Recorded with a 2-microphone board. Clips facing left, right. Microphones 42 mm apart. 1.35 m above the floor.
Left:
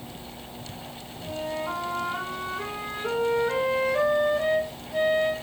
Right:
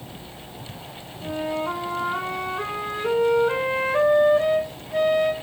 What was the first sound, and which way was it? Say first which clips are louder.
A flute: right 4 dB; 35° right (ahead or behind).